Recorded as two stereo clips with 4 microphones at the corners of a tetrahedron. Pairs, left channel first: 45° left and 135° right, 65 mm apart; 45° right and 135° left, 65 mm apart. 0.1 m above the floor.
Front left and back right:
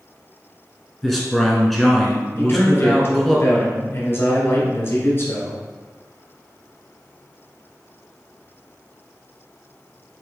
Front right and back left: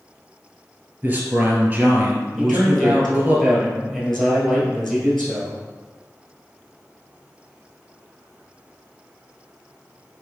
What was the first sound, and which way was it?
A man speaking, 135° left.